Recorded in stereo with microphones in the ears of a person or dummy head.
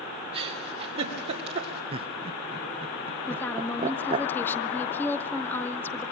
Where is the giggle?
30° right (ahead or behind), 2.5 m.